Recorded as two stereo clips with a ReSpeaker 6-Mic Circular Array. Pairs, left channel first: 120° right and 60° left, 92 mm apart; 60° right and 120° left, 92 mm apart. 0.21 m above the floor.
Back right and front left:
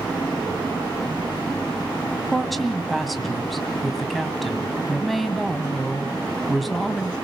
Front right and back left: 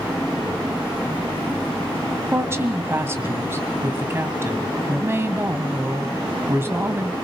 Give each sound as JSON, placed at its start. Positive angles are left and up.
{"t": 2.3, "sound": "a woman speaking", "azimuth_deg": 150, "distance_m": 1.6}